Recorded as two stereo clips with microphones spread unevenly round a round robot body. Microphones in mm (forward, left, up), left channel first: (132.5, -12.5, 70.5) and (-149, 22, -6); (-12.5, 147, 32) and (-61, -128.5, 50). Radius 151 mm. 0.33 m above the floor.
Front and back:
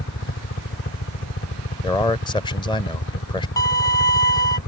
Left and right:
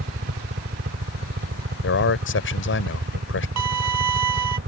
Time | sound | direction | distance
0.0 | a helicopter | 55° right | ?
1.8 | a man speaking | 80° left | ?
3.6 | a violin | 95° right | ?